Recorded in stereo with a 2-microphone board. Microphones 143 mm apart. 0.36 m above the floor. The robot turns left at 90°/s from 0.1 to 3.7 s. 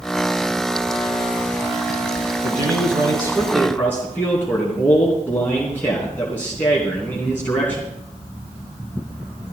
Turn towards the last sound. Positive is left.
turn(degrees=165)